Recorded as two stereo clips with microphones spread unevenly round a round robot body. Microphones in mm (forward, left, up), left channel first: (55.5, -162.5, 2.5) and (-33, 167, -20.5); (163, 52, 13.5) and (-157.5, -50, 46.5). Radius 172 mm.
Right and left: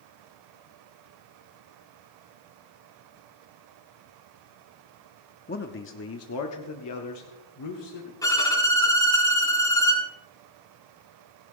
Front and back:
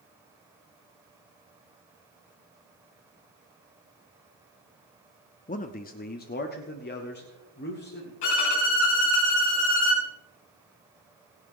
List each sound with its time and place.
5.5 s a man speaking: 25° right, 0.8 m; by 8.1 s 40° right, 2 m
8.2 s a violin: 5° left, 4 m